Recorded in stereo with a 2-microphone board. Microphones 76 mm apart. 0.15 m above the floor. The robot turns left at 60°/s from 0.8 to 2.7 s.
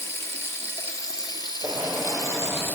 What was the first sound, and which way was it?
Running water, 145° left.